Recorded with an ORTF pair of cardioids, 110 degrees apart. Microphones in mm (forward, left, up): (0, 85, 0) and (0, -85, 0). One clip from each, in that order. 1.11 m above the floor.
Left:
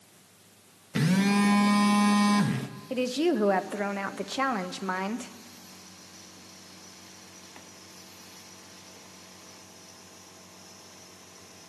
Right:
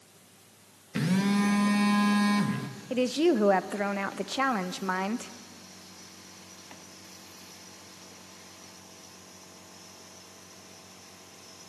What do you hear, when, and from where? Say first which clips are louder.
0.9 s a phone buzzing: left 3 dB; 15° left, 0.9 m
2.9 s a woman speaking: right 2 dB; 5° right, 0.6 m